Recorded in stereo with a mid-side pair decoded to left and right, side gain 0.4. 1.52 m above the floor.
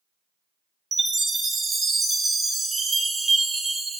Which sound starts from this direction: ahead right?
A chime, at 0.9 s.